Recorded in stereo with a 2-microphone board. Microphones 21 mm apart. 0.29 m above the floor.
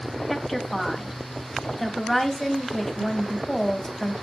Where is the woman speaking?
10° left (ahead or behind), 2 m.